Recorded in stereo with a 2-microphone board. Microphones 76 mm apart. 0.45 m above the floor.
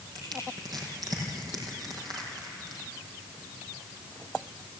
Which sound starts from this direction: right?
Crushing, at 0.1 s.